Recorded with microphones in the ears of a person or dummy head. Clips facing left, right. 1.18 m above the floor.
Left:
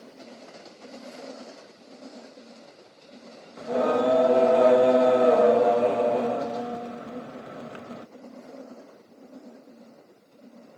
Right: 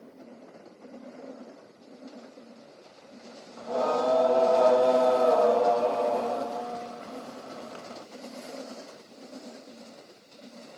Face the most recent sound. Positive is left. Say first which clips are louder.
# left 4 dB
turn(degrees=35)  # may be behind; listen again after turning